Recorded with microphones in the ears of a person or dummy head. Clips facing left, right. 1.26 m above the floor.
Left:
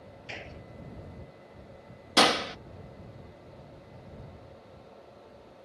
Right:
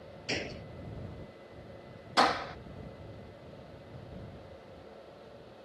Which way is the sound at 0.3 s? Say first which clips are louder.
Right 8 dB; 65° right (ahead or behind).